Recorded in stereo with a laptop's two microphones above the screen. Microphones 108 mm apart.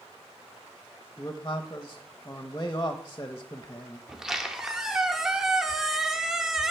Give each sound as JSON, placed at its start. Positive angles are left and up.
{"t": 1.2, "sound": "a man speaking", "side_deg": 30, "distance_m": 0.7}
{"t": 4.1, "sound": "a squeak", "side_deg": -5, "distance_m": 0.8}